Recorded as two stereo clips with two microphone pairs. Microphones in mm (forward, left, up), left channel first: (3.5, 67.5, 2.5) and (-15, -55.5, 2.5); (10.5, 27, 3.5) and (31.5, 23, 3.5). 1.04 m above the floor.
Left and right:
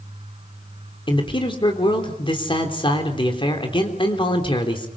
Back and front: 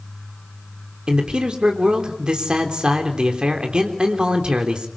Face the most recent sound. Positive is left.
turn(degrees=35)